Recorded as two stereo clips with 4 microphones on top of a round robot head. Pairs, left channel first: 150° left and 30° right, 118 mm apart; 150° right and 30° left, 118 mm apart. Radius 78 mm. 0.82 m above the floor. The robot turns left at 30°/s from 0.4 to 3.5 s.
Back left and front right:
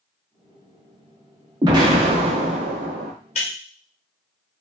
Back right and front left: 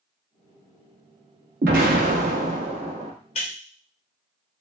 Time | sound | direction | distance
1.6 | an explosion | 30° left | 0.5 m
3.4 | breaking glass | straight behind | 0.6 m